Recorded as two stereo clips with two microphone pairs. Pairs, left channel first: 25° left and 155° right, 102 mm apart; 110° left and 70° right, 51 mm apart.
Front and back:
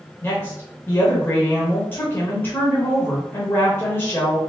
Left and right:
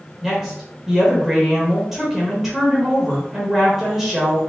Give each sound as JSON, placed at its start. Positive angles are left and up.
{"t": 0.2, "sound": "a woman speaking", "azimuth_deg": 5, "distance_m": 1.1}